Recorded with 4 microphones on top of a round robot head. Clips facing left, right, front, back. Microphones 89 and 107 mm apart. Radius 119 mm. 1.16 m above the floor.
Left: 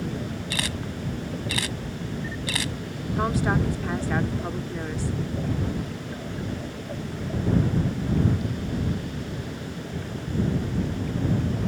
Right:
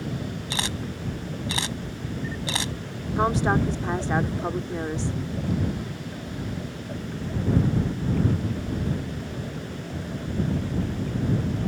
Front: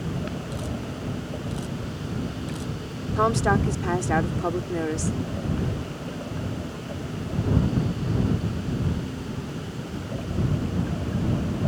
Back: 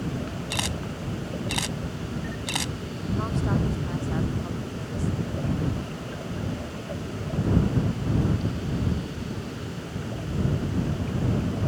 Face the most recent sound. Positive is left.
turn(degrees=-20)